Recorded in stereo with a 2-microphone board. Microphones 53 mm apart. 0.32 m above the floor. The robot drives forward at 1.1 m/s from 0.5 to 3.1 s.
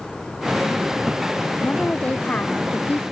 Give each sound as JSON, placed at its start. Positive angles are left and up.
{"t": 1.6, "sound": "a woman speaking", "side_deg": 25}